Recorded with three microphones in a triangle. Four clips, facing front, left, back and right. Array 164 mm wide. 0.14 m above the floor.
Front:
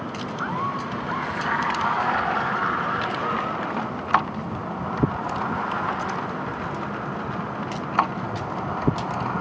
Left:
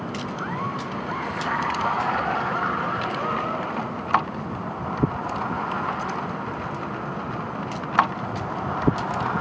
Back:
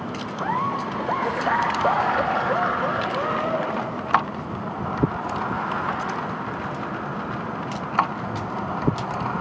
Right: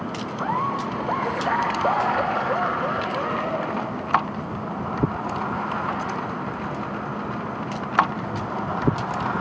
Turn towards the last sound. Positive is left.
turn(degrees=-160)